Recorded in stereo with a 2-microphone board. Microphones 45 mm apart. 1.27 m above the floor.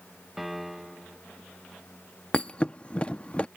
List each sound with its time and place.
0.4 s a piano: 5° right (ahead or behind)
2.3 s a thud: 25° left (ahead or behind)